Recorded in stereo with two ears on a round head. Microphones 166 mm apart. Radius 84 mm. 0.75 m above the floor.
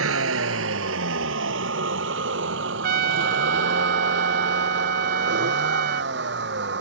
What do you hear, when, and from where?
0.0 s a vehicle: 80° right; by 6.8 s 60° right (ahead or behind)
2.8 s a trumpet: 55° right (ahead or behind)